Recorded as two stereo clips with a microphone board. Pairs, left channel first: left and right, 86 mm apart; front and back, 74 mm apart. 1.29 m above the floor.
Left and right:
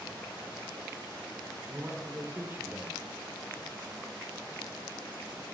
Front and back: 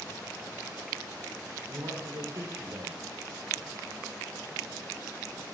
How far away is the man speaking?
About 4 m.